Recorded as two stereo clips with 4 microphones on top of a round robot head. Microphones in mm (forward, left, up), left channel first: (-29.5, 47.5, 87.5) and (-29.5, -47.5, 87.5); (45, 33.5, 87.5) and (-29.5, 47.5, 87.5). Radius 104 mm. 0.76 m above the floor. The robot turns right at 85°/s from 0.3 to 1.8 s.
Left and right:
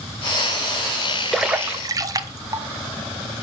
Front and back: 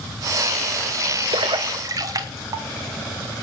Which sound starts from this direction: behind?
A splash, at 1.3 s.